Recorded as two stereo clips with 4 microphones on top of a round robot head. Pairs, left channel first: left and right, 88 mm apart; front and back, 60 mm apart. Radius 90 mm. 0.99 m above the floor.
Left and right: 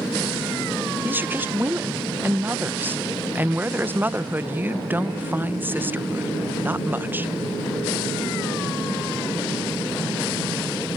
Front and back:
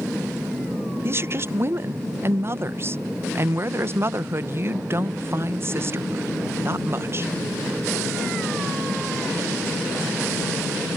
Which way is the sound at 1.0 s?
155° right.